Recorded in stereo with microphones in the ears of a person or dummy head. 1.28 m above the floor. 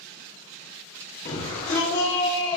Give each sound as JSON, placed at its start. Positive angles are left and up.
{"t": 1.2, "sound": "a shout", "side_deg": 45, "distance_m": 2.5}